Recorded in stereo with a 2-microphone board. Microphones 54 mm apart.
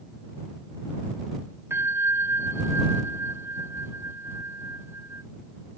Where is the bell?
50° right (ahead or behind).